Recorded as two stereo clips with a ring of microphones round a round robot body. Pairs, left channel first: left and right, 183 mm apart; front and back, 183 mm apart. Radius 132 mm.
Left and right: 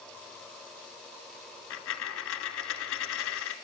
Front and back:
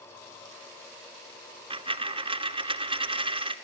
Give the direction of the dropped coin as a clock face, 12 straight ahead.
8 o'clock.